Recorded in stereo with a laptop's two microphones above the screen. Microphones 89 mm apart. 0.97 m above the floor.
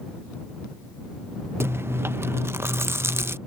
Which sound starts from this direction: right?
Chewing, at 1.6 s.